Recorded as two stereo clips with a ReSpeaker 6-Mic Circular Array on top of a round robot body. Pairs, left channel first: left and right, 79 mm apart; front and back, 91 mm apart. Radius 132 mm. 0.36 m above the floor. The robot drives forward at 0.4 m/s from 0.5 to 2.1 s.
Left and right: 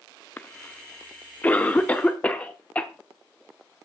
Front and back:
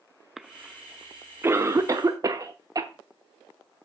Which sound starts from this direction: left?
A cough, at 0.4 s.